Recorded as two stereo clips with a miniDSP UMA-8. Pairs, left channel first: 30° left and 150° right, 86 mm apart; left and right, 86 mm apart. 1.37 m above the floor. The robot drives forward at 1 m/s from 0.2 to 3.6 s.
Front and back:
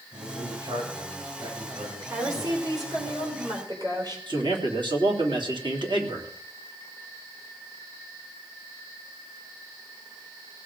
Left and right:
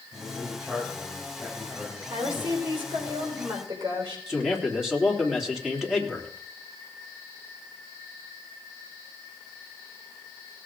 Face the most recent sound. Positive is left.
turn(degrees=-175)